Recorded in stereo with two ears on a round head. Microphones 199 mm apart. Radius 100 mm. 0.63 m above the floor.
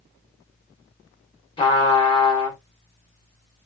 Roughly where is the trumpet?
Left.